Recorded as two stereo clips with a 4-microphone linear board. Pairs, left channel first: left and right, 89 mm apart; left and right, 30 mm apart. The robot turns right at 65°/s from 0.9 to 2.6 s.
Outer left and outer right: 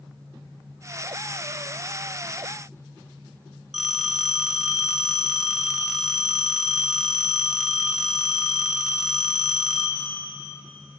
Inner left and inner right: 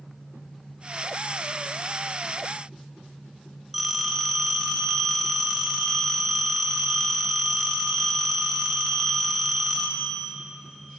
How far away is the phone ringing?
About 2.5 m.